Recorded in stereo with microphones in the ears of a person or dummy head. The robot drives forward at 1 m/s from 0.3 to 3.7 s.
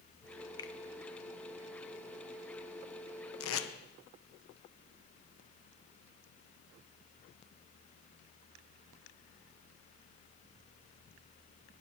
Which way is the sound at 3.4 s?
90° left.